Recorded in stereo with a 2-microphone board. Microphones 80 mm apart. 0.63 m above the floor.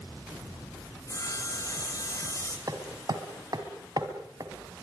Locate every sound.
1.1 s sawing: 40° left (ahead or behind), 4 m
2.7 s hammering: 50° right (ahead or behind), 2.5 m